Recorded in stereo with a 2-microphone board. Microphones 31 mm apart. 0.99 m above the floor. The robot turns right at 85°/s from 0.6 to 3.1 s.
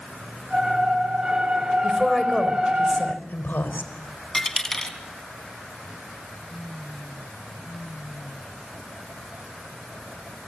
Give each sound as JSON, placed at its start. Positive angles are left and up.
{"t": 1.8, "sound": "a woman speaking", "azimuth_deg": -35, "distance_m": 4.0}
{"t": 4.3, "sound": "a dropped coin", "side_deg": 15, "distance_m": 2.5}